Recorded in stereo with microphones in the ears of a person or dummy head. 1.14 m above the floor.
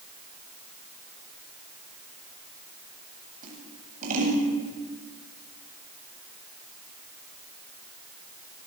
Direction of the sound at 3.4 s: 50° right (ahead or behind).